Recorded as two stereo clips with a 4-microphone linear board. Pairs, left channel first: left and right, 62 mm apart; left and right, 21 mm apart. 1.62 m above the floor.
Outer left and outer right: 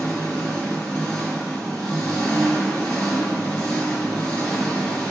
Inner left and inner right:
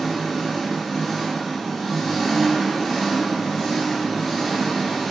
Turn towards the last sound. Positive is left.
turn(degrees=20)  # may be behind; listen again after turning